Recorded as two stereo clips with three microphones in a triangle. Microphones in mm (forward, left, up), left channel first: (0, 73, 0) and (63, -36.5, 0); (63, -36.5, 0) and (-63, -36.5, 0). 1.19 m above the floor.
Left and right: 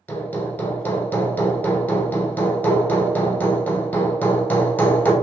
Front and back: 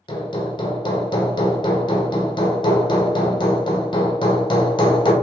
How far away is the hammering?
About 0.8 m.